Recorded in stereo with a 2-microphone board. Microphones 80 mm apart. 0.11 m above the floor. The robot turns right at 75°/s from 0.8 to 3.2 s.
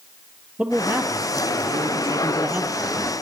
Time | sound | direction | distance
0.6 | a man speaking | 160° right | 2.5 m